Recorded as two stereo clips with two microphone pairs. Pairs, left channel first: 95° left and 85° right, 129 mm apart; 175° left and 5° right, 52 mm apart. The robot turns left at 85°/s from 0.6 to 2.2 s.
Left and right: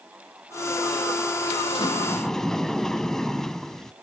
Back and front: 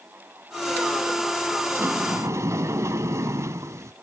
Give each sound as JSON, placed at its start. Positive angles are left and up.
{"t": 1.7, "sound": "a sliding door", "azimuth_deg": 50, "distance_m": 0.8}